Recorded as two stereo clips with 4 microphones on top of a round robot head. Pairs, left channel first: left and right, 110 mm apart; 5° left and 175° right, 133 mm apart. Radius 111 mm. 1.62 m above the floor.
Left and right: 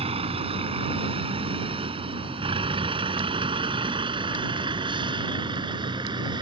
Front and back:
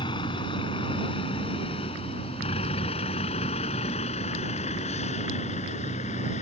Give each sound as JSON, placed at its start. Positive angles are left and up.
{"t": 0.0, "sound": "a vehicle", "azimuth_deg": -60}